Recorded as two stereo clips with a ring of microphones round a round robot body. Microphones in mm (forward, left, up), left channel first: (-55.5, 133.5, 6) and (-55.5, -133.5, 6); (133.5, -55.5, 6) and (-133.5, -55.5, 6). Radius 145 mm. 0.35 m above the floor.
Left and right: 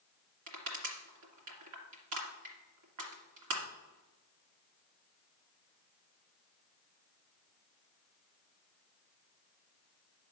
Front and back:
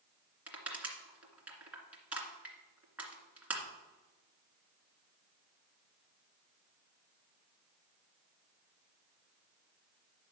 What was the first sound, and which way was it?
Crushing, 95° right.